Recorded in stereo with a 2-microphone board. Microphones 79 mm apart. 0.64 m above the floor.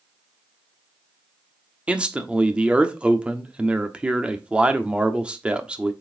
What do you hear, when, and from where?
1.9 s a man speaking: 15° right (ahead or behind), 1.2 m